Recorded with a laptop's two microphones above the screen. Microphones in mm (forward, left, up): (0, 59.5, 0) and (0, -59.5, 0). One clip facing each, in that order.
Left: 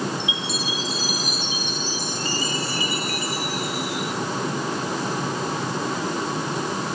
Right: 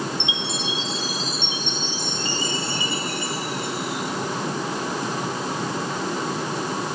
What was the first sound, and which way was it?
A chime, 25° right (ahead or behind).